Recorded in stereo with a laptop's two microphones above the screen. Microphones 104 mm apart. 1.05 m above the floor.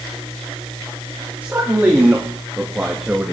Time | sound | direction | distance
1.4 | a man speaking | 15° right (ahead or behind) | 2.5 m